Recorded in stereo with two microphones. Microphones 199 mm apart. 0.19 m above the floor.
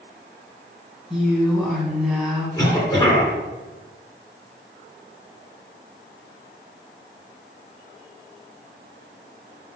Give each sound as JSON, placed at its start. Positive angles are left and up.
{"t": 1.1, "sound": "a woman speaking", "side_deg": 0, "distance_m": 1.8}
{"t": 2.6, "sound": "a cough", "side_deg": 20, "distance_m": 2.5}